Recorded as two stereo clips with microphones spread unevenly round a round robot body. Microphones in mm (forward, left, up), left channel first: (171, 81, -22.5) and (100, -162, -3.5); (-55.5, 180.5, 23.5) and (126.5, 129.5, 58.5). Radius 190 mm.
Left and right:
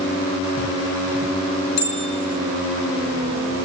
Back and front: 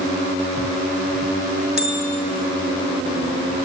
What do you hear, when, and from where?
1.8 s a bell: 75° left, 6 m